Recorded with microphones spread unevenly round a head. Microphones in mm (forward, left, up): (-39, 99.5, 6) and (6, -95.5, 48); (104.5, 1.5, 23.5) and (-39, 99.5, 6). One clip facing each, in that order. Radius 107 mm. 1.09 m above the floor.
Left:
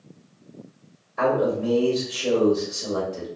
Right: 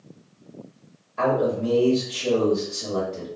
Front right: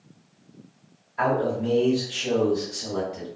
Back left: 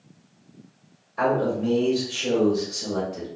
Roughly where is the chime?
No chime in this recording.